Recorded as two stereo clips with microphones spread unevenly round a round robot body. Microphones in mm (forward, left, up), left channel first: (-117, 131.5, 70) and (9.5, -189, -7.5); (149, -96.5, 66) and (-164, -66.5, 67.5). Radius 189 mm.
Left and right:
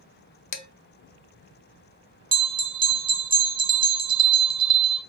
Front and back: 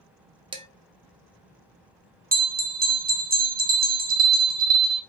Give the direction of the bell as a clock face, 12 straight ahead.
4 o'clock.